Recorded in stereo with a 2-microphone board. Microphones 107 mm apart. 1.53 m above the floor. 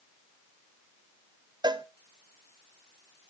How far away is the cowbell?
About 0.8 m.